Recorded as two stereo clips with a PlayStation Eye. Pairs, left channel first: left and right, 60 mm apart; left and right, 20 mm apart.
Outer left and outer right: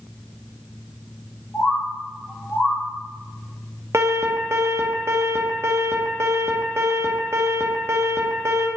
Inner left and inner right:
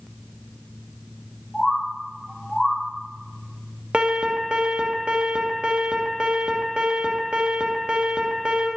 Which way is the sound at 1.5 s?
40° left (ahead or behind).